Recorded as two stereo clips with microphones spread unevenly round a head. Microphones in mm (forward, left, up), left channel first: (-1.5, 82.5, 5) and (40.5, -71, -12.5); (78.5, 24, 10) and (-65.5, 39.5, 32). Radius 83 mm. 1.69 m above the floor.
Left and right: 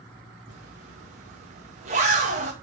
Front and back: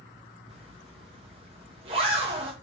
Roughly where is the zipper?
Behind right.